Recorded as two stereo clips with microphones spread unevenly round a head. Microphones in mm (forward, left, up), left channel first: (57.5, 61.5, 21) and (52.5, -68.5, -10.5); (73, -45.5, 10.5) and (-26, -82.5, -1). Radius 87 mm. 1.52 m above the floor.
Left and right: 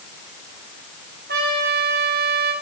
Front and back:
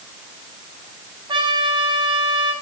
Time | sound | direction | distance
1.3 | a trumpet | 115° right | 5.5 m